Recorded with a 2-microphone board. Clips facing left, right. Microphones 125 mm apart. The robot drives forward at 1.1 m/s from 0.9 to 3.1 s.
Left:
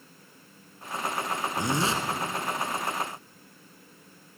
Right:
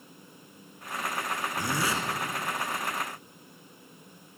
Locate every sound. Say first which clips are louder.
1.6 s a zipper: left 3 dB; 25° left (ahead or behind), 1.1 m